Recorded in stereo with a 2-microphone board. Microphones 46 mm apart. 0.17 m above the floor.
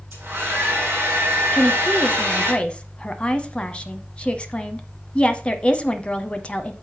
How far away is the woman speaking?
About 1.0 m.